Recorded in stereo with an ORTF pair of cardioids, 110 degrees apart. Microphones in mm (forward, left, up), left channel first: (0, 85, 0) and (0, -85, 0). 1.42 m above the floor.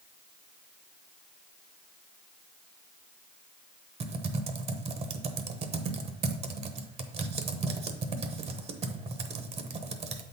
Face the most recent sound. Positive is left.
turn(degrees=-40)